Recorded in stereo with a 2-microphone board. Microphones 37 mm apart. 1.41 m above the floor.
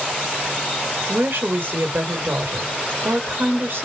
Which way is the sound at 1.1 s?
65° right (ahead or behind).